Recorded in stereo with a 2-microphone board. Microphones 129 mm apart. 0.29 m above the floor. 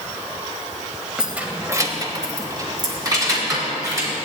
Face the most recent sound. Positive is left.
turn(degrees=-25)  # may be behind; listen again after turning